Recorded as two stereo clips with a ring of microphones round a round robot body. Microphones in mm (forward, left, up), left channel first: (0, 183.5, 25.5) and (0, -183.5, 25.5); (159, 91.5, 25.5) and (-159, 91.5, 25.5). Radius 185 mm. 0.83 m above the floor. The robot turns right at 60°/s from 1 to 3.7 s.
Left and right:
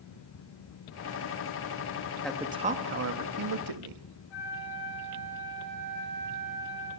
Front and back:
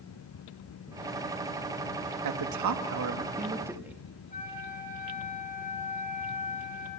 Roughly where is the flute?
Ahead left.